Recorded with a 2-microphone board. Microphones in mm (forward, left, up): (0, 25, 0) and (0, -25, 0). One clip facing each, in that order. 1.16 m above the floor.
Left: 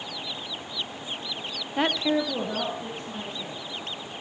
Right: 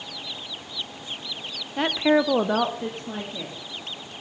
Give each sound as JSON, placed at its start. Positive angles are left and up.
{"t": 1.8, "sound": "a woman speaking", "side_deg": 10, "distance_m": 0.6}